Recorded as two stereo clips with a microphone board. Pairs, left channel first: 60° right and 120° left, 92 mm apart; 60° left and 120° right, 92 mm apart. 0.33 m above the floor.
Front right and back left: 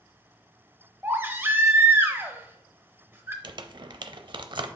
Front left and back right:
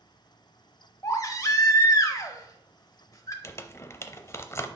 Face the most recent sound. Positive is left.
turn(degrees=115)